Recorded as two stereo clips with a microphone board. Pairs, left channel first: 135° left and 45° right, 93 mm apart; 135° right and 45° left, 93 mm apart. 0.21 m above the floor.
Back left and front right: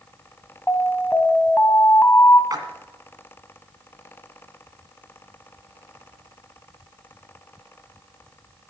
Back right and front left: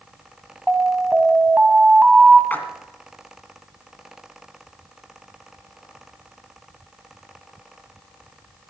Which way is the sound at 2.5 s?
70° right.